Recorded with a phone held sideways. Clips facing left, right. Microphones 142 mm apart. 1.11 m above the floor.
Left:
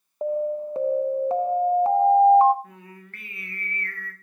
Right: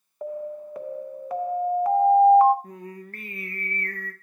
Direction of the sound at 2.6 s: 40° right (ahead or behind).